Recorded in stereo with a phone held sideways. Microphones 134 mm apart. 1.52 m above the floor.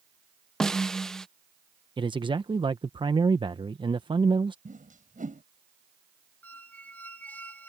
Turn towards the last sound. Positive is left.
turn(degrees=10)  # may be behind; listen again after turning